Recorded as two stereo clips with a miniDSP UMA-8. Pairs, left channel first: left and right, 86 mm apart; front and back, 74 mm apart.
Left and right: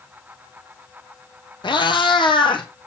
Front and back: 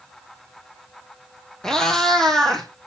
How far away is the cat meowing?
About 1.2 m.